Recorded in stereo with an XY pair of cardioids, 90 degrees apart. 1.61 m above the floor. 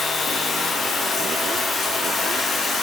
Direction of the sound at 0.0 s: 60° left.